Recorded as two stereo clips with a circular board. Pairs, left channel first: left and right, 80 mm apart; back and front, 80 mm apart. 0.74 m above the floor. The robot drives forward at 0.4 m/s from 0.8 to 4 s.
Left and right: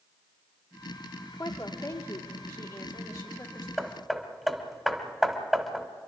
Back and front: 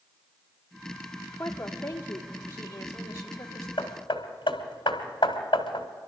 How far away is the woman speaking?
About 1.9 m.